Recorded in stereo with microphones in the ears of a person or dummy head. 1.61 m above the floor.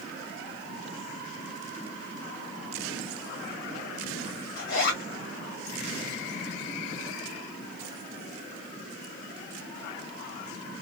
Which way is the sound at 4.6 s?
60° left (ahead or behind).